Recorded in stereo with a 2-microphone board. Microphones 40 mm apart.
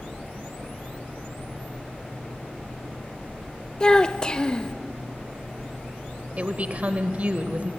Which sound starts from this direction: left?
A child speaking, at 3.8 s.